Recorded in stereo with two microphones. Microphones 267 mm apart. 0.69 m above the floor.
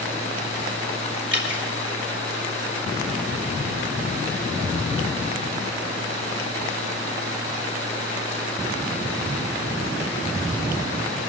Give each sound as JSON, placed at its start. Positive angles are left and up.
{"t": 1.3, "sound": "dripping", "side_deg": -45, "distance_m": 3.0}